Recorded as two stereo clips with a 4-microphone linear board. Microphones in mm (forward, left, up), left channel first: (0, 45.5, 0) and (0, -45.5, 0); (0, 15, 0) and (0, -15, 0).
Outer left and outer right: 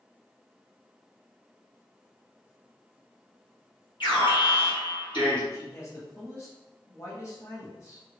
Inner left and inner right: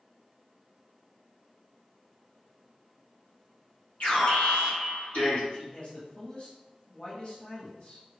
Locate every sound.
4.0 s an alarm: 60° left (ahead or behind), 1.6 m
5.5 s a man speaking: 30° left (ahead or behind), 1.3 m